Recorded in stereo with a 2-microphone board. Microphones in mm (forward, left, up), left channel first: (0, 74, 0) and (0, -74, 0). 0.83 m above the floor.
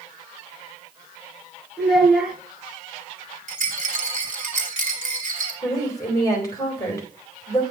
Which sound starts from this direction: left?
A woman speaking, at 5.6 s.